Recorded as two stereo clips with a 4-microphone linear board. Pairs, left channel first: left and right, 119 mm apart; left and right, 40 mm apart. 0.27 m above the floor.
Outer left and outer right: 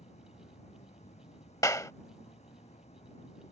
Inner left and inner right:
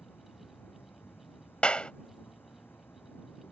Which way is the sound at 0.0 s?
70° left (ahead or behind).